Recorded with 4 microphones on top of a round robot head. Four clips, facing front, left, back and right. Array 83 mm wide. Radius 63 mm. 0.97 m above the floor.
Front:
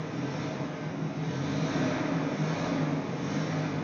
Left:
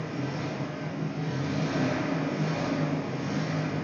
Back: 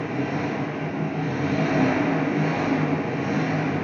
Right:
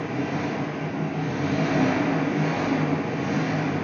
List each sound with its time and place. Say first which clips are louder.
0.0 s an engine running: right 6 dB, back 8 dB; 150° right, 3 m